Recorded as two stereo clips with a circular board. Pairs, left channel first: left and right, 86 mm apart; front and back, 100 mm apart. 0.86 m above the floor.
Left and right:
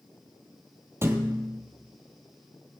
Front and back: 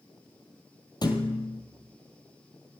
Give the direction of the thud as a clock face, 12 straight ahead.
1 o'clock.